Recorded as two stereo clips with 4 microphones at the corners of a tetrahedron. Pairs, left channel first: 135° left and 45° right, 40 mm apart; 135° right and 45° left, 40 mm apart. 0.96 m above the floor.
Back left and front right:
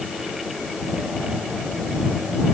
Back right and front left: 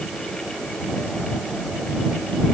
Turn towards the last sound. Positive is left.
No sound to turn to.